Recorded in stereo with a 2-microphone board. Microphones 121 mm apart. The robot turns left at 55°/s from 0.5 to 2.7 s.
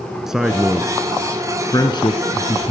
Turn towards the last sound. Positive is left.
turn(degrees=65)